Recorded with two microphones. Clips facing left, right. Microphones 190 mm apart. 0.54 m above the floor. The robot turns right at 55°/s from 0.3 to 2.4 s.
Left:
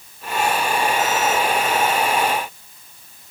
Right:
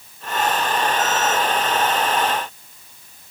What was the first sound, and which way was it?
Only background noise.